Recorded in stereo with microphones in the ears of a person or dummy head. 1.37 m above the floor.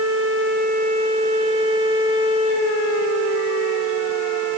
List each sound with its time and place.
Only background noise.